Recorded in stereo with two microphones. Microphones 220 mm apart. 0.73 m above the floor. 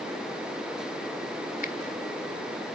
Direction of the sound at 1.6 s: 40° left (ahead or behind).